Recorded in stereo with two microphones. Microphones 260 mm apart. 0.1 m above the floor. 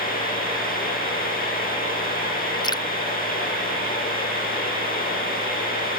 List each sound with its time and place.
2.6 s dripping: 15° left (ahead or behind)